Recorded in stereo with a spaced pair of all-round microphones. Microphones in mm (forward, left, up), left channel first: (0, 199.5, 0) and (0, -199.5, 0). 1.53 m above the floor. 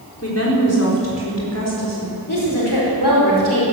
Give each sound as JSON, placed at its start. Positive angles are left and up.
{"t": 0.2, "sound": "a woman speaking", "side_deg": 35, "distance_m": 4.5}
{"t": 2.3, "sound": "a woman speaking", "side_deg": 75, "distance_m": 4.5}